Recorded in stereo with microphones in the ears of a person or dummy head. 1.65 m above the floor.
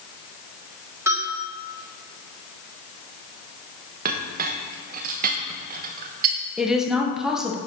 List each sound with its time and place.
1.1 s a bell: 15° right (ahead or behind), 1.8 m
4.0 s a clink: 50° right (ahead or behind), 1.1 m
6.6 s a woman speaking: centre (ahead or behind), 1.6 m